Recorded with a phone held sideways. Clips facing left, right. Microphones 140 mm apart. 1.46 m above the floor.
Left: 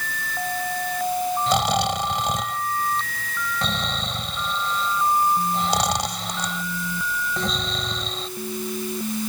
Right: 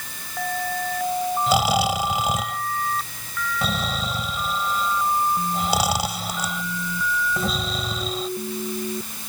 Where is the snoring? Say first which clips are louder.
Right 3 dB; 5° right (ahead or behind).